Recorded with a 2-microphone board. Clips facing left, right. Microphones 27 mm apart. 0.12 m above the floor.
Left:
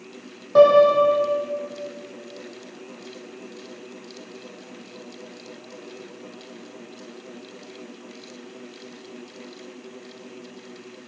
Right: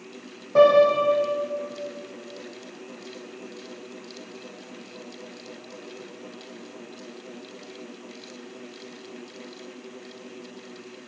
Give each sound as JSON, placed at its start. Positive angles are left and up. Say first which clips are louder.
{"t": 0.6, "sound": "a piano", "louder": "left 3 dB", "side_deg": 45, "distance_m": 3.5}